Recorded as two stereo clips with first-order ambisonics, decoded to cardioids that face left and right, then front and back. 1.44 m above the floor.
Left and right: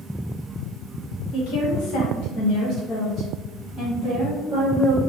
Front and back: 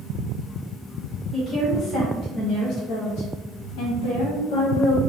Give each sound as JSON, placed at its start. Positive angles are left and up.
{"t": 1.3, "sound": "a woman speaking", "azimuth_deg": 80, "distance_m": 1.2}